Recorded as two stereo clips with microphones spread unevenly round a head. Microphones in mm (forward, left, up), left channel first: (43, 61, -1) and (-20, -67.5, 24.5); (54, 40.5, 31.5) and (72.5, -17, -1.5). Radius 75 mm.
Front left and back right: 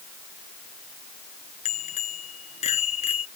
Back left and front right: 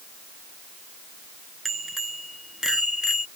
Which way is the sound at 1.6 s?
20° left.